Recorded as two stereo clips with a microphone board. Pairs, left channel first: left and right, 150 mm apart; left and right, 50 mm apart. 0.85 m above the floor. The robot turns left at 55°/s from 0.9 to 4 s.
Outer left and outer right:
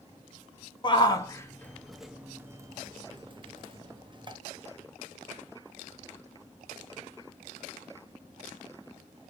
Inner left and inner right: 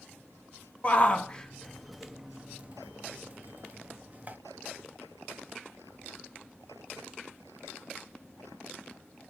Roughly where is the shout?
Left.